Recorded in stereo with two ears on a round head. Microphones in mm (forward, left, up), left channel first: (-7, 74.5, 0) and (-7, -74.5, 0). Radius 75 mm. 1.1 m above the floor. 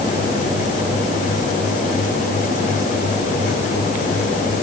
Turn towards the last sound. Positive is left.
No sound to turn to.